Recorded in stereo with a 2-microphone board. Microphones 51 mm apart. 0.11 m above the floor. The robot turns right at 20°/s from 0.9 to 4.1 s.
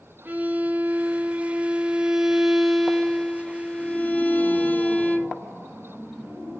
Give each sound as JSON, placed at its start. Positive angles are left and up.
{"t": 0.2, "sound": "a violin", "azimuth_deg": -35, "distance_m": 1.2}